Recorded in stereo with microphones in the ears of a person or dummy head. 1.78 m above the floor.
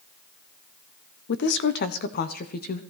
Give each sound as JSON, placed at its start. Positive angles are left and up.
{"t": 1.3, "sound": "a woman speaking", "side_deg": 70, "distance_m": 1.0}